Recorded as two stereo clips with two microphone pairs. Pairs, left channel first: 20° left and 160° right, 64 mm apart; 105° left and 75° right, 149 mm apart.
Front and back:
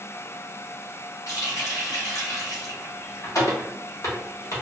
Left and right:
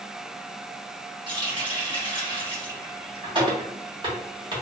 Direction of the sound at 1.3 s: 15° right.